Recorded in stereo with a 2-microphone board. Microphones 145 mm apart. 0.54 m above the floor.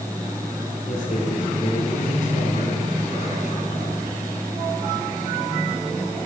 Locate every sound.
0.9 s a man speaking: 60° left (ahead or behind), 7 m